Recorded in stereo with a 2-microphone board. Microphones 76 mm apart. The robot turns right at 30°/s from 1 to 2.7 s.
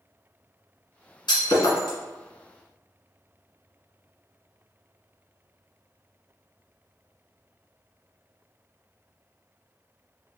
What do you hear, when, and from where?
1.3 s breaking glass: 70° left (ahead or behind), 1.6 m; by 2.0 s 65° left (ahead or behind), 1.6 m